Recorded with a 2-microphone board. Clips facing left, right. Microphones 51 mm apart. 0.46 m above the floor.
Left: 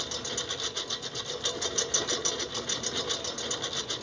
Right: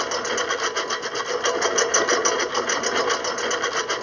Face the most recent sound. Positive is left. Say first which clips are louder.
# right 13 dB
turn(degrees=-60)  # may be behind; listen again after turning